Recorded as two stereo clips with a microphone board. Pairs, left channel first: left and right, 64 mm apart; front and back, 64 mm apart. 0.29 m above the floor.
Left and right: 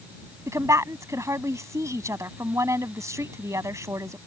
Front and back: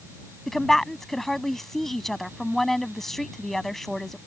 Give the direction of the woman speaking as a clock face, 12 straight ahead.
3 o'clock.